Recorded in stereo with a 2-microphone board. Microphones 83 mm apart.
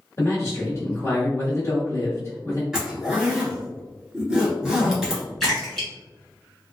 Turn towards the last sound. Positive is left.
turn(degrees=5)  # may be behind; listen again after turning